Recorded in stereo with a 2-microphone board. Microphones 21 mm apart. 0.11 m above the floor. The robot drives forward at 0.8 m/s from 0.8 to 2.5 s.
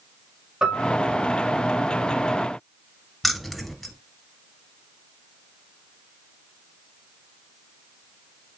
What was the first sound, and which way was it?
A piano, 40° right (ahead or behind).